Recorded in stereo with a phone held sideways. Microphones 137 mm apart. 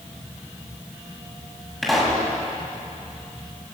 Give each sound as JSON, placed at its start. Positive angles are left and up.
{"t": 1.8, "sound": "a pop", "side_deg": 0, "distance_m": 8.0}